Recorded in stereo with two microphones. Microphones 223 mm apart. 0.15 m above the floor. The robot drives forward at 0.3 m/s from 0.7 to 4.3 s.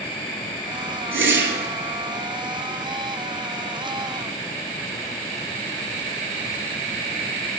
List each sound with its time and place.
1.1 s a whoosh: 65° right (ahead or behind), 0.6 m; by 1.7 s 50° right (ahead or behind), 0.7 m